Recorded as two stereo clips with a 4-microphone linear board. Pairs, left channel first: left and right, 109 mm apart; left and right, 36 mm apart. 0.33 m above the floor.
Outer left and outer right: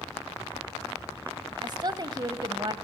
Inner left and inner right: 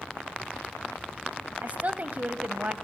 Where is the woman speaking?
40° right (ahead or behind), 1.5 m.